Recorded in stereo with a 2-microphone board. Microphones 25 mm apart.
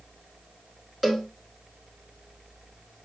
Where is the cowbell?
10° right (ahead or behind), 1.1 m.